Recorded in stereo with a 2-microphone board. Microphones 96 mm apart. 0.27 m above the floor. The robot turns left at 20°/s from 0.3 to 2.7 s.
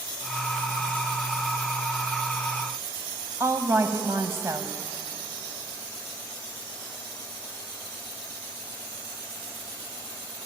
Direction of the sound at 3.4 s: 30° right (ahead or behind).